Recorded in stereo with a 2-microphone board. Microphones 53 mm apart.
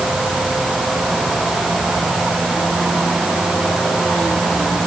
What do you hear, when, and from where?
Only background noise.